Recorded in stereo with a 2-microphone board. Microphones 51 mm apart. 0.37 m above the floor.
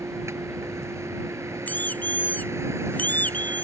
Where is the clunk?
No clunk in this recording.